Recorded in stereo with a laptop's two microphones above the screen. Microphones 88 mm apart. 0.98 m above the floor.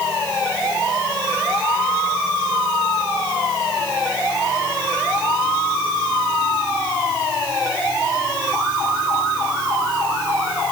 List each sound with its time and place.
Only background noise.